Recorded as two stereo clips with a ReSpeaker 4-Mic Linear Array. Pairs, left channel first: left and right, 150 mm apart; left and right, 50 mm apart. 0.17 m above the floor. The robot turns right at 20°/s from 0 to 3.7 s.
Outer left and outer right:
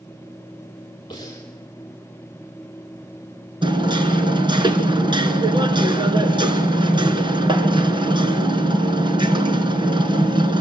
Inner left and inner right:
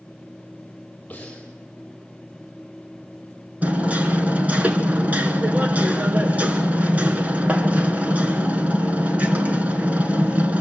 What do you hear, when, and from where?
1.1 s breathing: 30° left (ahead or behind), 6.5 m; by 1.5 s 20° left (ahead or behind), 6.5 m
3.6 s hammering: 30° right (ahead or behind), 2.5 m